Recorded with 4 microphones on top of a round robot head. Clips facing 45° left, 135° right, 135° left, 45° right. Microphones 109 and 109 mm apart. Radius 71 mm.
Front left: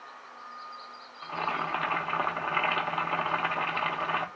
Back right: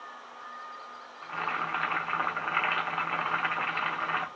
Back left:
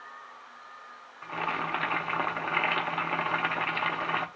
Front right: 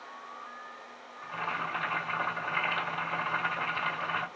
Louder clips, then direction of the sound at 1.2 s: Front left 2 dB, back left 3 dB; 115° left.